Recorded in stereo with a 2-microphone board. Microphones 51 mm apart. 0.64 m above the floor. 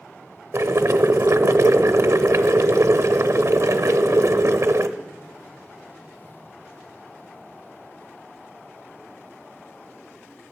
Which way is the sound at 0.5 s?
65° right (ahead or behind).